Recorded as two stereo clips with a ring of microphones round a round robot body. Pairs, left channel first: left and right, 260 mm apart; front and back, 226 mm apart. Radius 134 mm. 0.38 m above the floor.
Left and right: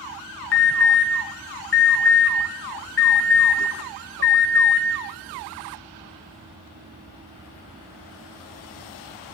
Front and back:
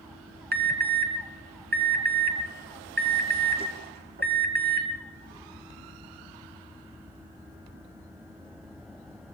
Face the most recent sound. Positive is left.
turn(degrees=135)